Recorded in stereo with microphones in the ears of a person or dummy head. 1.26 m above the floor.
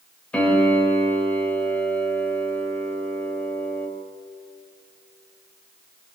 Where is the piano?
5° left (ahead or behind), 5.5 m.